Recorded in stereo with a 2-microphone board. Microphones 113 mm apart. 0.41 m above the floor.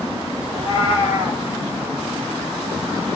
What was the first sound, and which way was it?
A cat meowing, 55° right (ahead or behind).